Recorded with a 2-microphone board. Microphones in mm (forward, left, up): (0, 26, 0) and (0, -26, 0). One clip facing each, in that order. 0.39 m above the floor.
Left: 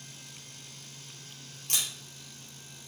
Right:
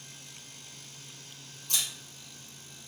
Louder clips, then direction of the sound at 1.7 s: Even; 65° left (ahead or behind).